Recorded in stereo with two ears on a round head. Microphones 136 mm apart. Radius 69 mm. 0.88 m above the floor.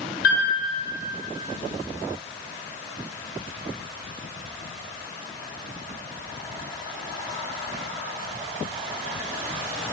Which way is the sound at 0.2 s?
65° left (ahead or behind).